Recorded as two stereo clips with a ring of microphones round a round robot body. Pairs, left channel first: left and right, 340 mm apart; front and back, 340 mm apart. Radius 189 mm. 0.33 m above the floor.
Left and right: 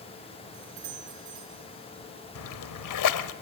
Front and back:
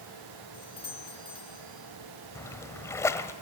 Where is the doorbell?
75° right, 4.5 m.